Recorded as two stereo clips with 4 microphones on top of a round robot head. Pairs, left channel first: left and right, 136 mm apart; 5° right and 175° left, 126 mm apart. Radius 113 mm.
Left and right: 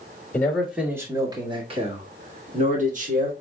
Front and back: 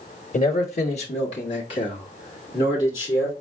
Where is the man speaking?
10° left, 1.1 m; by 3.3 s 70° right, 2.5 m.